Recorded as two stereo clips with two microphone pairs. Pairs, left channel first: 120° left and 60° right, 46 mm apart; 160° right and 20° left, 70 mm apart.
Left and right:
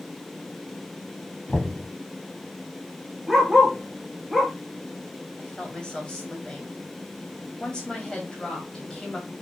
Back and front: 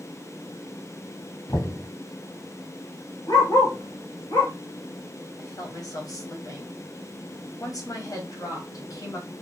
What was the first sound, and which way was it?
Knocking, 175° right.